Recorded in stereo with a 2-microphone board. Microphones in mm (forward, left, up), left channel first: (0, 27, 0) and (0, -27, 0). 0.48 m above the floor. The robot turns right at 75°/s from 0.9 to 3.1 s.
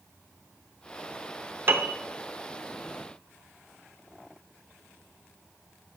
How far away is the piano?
About 0.6 m.